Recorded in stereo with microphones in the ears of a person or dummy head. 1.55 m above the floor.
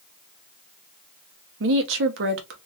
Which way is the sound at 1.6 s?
65° right (ahead or behind).